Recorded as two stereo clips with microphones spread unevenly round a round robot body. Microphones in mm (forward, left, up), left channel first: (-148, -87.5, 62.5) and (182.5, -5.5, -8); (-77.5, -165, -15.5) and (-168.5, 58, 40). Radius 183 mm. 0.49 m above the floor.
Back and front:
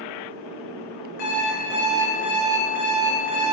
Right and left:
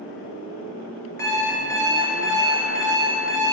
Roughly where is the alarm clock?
Behind.